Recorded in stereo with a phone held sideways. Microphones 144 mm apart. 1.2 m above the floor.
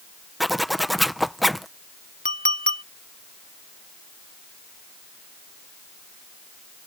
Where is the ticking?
I don't hear ticking.